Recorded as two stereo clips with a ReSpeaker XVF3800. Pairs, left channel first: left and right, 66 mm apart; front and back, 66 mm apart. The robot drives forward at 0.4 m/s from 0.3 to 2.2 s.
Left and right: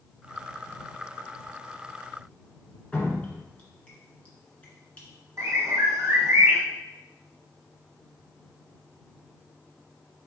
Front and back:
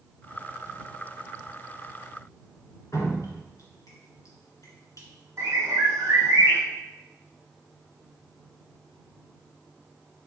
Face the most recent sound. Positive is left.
turn(degrees=-130)